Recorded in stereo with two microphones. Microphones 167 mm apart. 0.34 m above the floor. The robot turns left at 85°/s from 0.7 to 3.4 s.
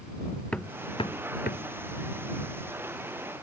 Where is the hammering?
5° left (ahead or behind); by 1.7 s 90° left.